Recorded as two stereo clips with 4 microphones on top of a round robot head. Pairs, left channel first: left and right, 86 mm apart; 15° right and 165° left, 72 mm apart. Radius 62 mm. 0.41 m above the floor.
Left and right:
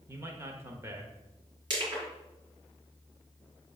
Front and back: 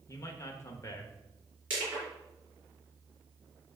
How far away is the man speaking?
About 1.1 m.